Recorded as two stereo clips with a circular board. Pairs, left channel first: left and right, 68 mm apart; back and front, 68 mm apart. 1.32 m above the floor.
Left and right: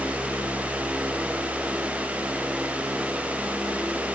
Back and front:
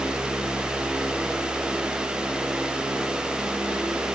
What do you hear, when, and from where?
Only background noise.